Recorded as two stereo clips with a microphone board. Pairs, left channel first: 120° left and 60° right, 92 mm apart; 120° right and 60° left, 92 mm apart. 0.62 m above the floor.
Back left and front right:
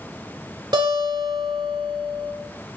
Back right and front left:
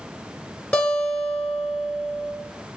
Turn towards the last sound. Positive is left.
turn(degrees=-50)